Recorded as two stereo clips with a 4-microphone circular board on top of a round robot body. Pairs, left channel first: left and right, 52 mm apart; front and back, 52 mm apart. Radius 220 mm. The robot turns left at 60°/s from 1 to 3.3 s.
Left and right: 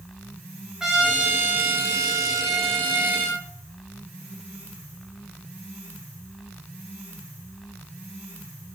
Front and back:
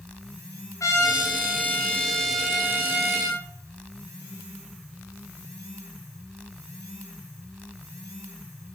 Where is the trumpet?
10° right, 2.5 m; by 3.4 s 145° right, 2.5 m.